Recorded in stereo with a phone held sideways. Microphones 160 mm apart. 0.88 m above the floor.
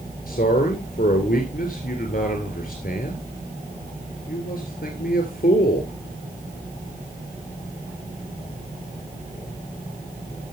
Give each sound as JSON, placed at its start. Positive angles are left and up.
{"t": 0.3, "sound": "a man speaking", "side_deg": 60, "distance_m": 2.5}